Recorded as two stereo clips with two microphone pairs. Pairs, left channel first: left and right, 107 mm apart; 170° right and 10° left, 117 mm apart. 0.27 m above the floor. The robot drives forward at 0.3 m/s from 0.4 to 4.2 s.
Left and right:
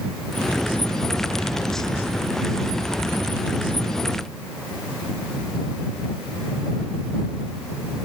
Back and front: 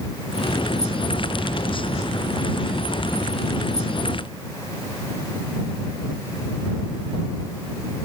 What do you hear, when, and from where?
Only background noise.